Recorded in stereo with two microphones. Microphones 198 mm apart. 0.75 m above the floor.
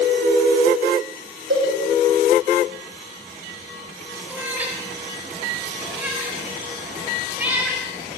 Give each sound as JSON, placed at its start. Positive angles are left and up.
{"t": 1.5, "sound": "a cowbell", "side_deg": -85, "distance_m": 5.5}
{"t": 4.3, "sound": "a cat meowing", "side_deg": -10, "distance_m": 1.5}